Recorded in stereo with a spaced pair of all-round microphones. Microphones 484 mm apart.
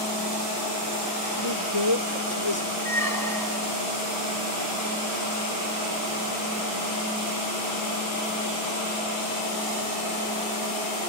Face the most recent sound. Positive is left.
turn(degrees=-45)  # may be behind; listen again after turning